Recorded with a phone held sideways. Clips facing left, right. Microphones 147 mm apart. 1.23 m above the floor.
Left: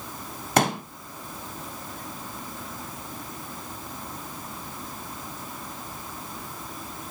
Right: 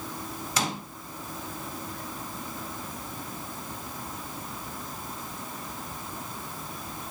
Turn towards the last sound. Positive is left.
turn(degrees=55)  # may be behind; listen again after turning